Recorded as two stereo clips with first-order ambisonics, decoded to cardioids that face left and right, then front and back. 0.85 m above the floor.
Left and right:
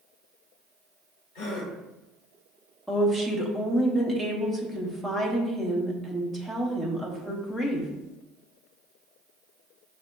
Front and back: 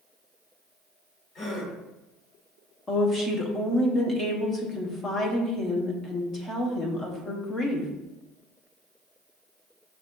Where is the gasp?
55° left, 1.2 m.